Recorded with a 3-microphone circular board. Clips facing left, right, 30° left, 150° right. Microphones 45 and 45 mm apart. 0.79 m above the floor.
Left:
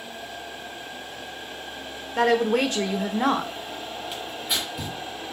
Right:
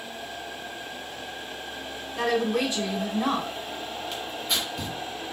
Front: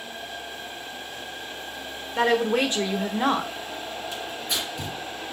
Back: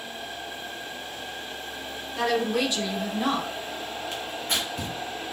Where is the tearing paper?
170° left, 1.3 m.